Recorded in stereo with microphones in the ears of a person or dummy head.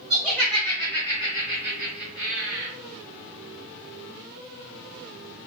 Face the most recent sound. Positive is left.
turn(degrees=30)  # may be behind; listen again after turning